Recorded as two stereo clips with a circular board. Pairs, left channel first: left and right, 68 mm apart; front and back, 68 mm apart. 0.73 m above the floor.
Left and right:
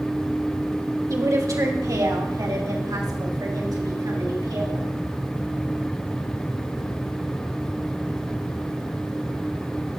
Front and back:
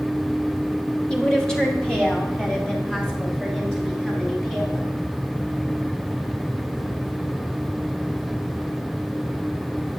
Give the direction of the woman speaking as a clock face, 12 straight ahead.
3 o'clock.